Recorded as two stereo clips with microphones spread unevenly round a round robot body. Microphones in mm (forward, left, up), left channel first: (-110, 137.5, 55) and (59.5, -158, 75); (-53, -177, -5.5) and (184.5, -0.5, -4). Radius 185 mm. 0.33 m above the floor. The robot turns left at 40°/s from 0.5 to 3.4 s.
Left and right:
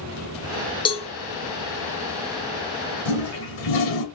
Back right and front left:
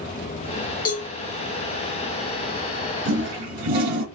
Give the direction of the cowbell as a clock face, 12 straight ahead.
6 o'clock.